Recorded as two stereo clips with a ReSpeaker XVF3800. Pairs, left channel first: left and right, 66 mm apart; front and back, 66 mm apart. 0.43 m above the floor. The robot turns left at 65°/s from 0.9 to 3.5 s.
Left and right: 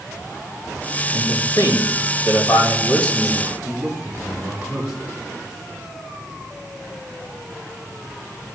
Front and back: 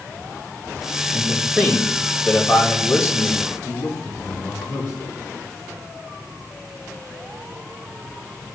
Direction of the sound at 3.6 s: 15° right.